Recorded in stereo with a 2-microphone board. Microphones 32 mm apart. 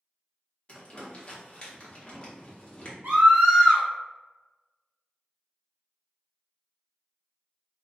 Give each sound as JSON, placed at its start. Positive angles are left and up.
{"t": 0.7, "sound": "crumpling", "side_deg": 35, "distance_m": 0.8}
{"t": 3.0, "sound": "a scream", "side_deg": -65, "distance_m": 1.6}